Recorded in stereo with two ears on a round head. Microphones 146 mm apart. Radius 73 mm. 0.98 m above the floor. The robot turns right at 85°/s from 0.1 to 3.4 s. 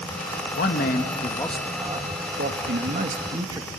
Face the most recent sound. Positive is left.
turn(degrees=-25)